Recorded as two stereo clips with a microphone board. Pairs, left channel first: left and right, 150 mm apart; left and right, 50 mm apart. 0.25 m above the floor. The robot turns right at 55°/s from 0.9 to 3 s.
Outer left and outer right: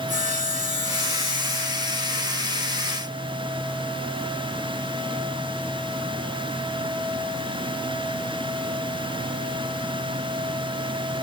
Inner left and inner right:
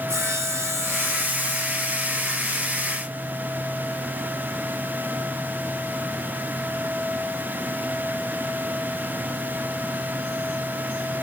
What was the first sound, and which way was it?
Sawing, 55° right.